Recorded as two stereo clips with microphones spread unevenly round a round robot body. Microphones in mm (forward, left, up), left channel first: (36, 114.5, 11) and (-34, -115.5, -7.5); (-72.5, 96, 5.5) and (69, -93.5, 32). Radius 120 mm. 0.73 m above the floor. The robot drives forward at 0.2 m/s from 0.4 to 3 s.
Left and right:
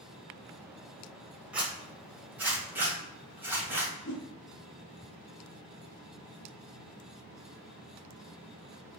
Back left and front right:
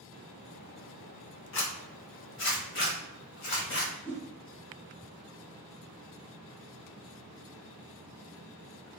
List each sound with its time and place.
1.5 s a zipper: 165° left, 1.0 m; by 3.9 s 170° left, 1.3 m
4.0 s a whoosh: 45° left, 0.8 m